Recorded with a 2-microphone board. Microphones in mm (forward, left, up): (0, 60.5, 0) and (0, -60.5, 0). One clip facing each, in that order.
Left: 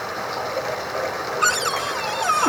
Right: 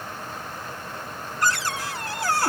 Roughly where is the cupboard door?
Left.